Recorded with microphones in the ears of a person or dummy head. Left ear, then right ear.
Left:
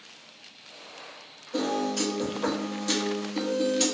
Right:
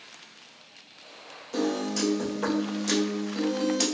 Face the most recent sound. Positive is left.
turn(degrees=-65)  # may be behind; listen again after turning